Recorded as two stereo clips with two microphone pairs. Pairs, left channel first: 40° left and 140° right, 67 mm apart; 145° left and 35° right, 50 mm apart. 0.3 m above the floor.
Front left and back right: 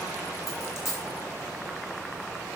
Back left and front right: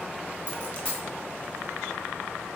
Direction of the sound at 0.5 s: 80° left.